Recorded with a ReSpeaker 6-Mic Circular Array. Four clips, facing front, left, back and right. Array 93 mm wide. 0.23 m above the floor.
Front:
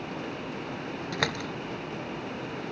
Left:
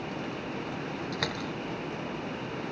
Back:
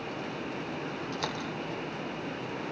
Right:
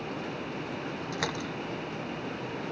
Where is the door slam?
5° right, 2.5 m.